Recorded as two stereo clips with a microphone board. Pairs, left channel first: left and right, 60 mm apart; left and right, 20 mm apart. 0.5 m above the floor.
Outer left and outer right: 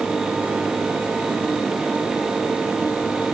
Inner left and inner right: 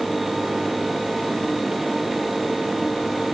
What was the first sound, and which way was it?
Only background noise.